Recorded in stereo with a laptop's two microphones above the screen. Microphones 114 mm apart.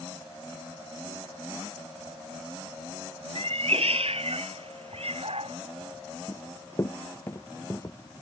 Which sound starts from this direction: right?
A cat meowing, at 3.4 s.